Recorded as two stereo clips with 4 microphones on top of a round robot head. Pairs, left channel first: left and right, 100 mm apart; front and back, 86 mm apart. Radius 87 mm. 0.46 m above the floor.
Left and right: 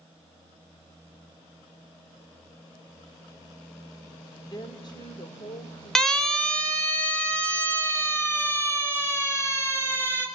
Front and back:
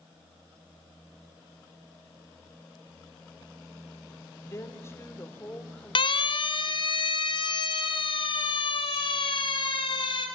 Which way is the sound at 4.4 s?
50° left.